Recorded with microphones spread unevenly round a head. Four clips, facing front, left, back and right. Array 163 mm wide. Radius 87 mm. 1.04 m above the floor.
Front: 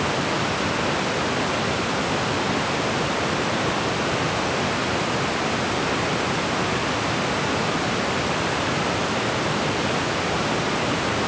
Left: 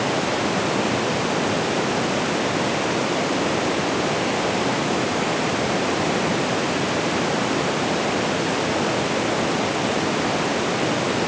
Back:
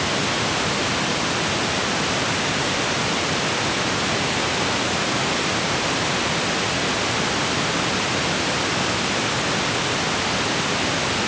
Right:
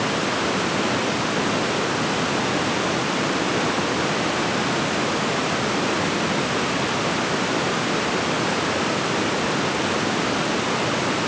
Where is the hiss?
I don't hear a hiss.